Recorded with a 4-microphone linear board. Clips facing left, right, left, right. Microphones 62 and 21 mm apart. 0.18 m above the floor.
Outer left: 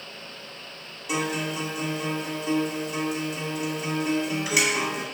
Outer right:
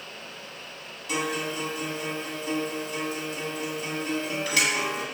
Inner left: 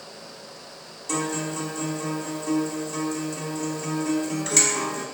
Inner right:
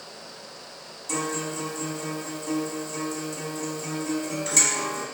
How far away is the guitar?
About 0.6 m.